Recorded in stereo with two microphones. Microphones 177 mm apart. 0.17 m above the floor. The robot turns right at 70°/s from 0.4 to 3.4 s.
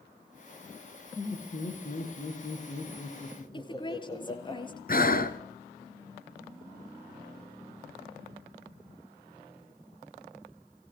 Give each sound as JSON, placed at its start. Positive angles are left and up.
{"t": 1.1, "sound": "laughter", "azimuth_deg": 0, "distance_m": 9.5}
{"t": 3.5, "sound": "a woman speaking", "side_deg": 25, "distance_m": 2.5}
{"t": 4.9, "sound": "breathing", "side_deg": 55, "distance_m": 1.7}